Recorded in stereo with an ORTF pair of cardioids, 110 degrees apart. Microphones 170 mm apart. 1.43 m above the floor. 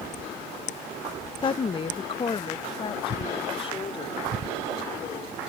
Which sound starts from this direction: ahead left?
A woman speaking, at 1.4 s.